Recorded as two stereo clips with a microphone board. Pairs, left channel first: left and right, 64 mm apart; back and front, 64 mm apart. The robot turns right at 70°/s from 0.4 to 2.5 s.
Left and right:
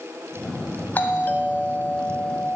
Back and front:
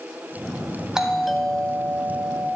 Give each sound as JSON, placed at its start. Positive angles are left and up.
{"t": 0.9, "sound": "a doorbell", "azimuth_deg": 70, "distance_m": 1.8}